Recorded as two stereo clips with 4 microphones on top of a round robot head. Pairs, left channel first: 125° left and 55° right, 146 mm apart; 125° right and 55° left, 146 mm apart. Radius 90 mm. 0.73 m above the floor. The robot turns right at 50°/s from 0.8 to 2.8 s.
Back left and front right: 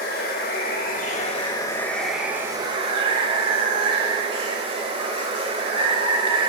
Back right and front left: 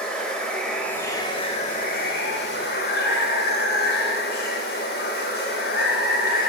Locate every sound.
0.0 s running water: 150° left, 0.8 m; by 6.5 s 110° right, 0.8 m